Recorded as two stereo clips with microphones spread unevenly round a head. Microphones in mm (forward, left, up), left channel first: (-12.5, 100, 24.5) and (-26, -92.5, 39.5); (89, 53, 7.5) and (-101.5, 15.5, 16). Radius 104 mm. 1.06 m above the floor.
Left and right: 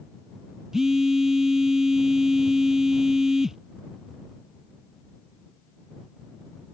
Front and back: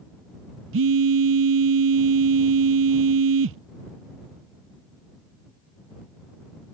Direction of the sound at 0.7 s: 175° left.